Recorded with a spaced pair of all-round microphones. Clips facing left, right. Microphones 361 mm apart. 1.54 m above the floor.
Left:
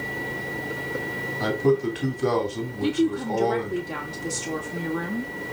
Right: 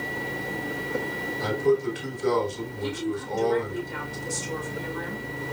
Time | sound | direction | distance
1.4 | a man speaking | 75° left (ahead or behind) | 2.5 m
2.8 | a woman speaking | 75° left (ahead or behind) | 2.5 m